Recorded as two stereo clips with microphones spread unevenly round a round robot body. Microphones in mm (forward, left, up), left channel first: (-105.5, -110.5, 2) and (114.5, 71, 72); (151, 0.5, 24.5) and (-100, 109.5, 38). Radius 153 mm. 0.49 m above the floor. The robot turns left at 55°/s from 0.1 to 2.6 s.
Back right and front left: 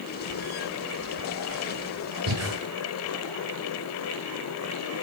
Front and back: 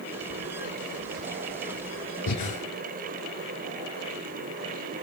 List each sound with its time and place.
2.3 s breathing: 5° left, 7.5 m; by 2.6 s 10° right, 7.5 m